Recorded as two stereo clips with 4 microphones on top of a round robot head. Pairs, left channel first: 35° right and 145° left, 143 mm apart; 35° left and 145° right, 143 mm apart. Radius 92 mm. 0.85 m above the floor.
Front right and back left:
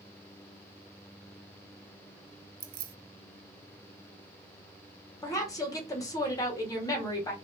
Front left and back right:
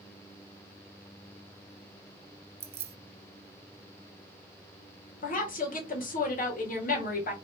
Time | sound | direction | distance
2.6 | keys jangling | 165° left | 0.6 m
5.2 | a woman speaking | 30° left | 1.9 m